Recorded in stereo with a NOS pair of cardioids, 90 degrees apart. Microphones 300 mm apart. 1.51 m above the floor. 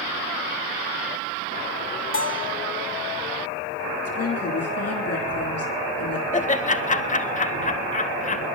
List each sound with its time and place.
2.1 s a bell: 45° left, 1.9 m
4.0 s a woman speaking: 60° left, 3.5 m
6.3 s laughter: 25° left, 1.7 m